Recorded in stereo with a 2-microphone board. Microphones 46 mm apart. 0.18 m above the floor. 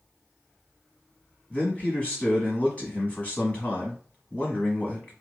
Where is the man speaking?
30° left (ahead or behind), 1.1 m.